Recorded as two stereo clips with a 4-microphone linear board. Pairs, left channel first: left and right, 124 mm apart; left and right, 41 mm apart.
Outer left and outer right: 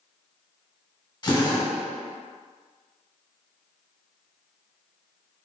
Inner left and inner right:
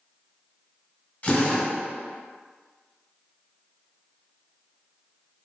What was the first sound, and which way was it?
A drill, 35° left (ahead or behind).